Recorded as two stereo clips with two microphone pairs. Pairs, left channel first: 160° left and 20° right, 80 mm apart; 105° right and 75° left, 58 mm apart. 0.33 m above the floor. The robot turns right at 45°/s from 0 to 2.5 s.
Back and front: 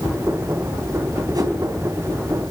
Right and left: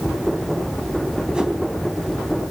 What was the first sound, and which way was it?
A whoosh, straight ahead.